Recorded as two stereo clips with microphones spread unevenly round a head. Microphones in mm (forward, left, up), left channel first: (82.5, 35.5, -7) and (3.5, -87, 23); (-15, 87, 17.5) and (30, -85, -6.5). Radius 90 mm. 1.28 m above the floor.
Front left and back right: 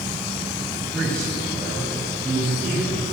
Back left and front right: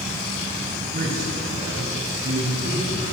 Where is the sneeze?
No sneeze in this recording.